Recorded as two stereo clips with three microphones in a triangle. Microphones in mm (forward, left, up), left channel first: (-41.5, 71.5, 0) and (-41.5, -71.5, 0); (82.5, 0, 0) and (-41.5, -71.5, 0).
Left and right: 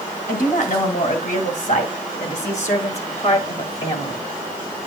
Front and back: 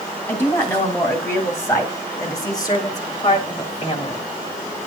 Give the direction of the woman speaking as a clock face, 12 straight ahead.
9 o'clock.